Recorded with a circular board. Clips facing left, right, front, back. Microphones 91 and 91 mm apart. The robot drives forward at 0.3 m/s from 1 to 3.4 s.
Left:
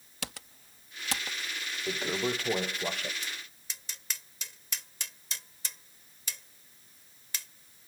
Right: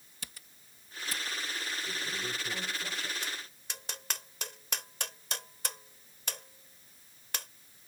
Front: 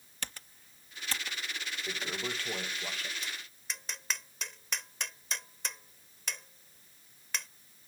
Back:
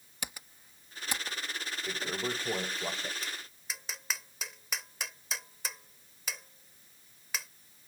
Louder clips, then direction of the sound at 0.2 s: Left 10 dB, back 1 dB; 100° left.